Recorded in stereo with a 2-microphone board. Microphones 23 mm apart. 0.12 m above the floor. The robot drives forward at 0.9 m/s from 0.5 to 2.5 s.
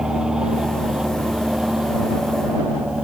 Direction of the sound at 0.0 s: 30° right (ahead or behind).